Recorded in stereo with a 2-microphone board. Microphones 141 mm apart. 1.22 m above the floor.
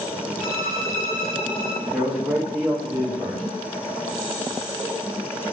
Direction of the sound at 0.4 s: 80° left.